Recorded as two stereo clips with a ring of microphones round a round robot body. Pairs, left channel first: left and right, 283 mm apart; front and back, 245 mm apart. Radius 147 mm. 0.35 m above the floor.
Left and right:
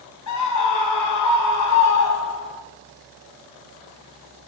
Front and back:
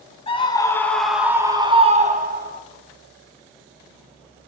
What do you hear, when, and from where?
0.3 s a scream: 65° left, 2.5 m; by 2.6 s 135° left, 3 m